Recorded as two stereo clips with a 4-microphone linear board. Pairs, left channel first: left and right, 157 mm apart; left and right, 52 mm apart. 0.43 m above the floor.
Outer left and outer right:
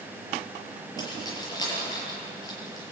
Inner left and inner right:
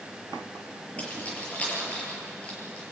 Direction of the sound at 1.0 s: 25° left (ahead or behind).